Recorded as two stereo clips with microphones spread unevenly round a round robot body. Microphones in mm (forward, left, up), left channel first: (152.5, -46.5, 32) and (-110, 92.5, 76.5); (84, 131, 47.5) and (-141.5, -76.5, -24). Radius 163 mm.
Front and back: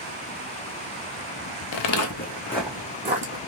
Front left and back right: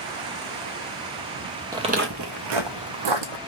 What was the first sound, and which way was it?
Footsteps, 50° right.